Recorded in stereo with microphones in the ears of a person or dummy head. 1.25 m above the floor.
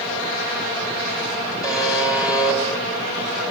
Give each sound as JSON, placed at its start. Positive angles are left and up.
{"t": 1.6, "sound": "a buzzer", "side_deg": -10, "distance_m": 4.5}